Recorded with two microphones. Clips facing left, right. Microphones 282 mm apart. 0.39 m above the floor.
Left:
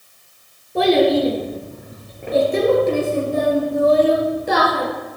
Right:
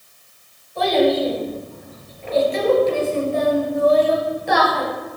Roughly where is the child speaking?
Left.